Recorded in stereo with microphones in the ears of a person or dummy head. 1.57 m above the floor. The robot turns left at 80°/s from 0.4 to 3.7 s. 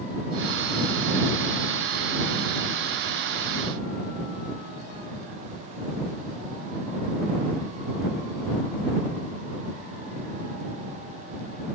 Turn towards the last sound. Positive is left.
No sound to turn to.